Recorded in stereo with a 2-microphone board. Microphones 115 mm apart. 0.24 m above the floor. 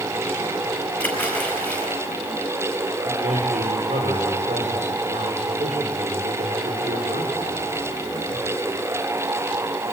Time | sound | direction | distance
1.0 | a splash | 15° left (ahead or behind) | 5 m
3.0 | a man speaking | 80° right | 7.5 m